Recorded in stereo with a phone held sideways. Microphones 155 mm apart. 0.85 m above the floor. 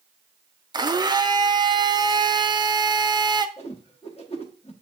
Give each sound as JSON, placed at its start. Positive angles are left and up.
{"t": 0.7, "sound": "a blender", "side_deg": -25, "distance_m": 0.5}
{"t": 3.6, "sound": "a whoosh", "side_deg": 40, "distance_m": 1.2}